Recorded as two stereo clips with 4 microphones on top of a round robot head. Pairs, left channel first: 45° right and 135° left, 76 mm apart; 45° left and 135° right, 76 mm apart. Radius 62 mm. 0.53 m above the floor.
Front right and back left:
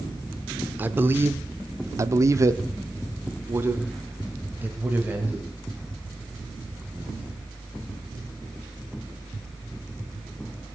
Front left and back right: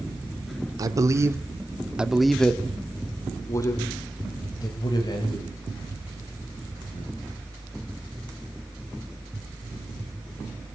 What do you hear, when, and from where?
0.8 s a man speaking: 160° right, 2 m; by 7.3 s 60° left, 5.5 m